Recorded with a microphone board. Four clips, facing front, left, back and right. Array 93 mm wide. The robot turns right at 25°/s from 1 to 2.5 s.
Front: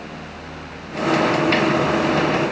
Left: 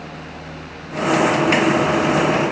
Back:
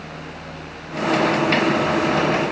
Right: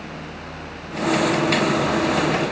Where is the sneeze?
No sneeze in this recording.